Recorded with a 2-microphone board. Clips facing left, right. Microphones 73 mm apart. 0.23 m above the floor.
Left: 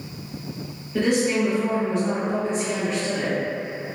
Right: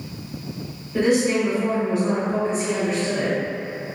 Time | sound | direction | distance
0.9 | a woman speaking | 10° right (ahead or behind) | 0.9 m